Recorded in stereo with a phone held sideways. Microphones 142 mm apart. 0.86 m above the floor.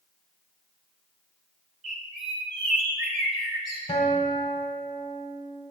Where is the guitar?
50° left (ahead or behind), 1.8 m.